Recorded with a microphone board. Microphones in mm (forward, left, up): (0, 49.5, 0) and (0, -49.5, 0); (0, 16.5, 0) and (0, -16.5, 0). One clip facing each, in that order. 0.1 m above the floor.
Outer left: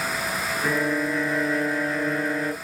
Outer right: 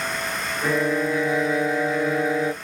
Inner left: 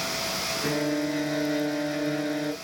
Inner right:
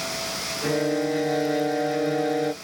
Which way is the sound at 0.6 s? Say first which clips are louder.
Outer right 3 dB, inner right 4 dB; 5° right (ahead or behind).